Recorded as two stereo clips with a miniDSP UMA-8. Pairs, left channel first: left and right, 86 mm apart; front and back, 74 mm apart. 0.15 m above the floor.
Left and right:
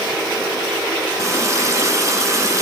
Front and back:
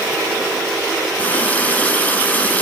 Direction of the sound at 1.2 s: 60° right.